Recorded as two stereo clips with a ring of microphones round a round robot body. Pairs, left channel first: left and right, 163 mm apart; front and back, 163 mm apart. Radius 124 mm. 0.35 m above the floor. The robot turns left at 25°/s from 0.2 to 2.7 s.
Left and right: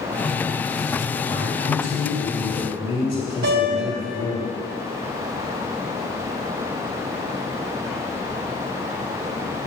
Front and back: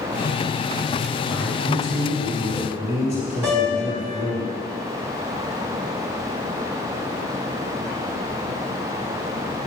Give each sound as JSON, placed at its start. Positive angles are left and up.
{"t": 1.3, "sound": "a man speaking", "azimuth_deg": 80, "distance_m": 2.5}
{"t": 3.4, "sound": "a piano", "azimuth_deg": -90, "distance_m": 1.4}